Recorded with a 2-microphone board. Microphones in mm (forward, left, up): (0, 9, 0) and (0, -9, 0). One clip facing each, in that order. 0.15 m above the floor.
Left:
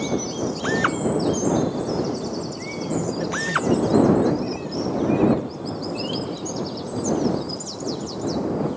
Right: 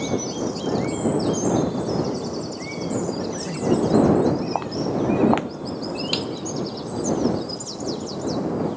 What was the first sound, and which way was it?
A drill, 75° left (ahead or behind).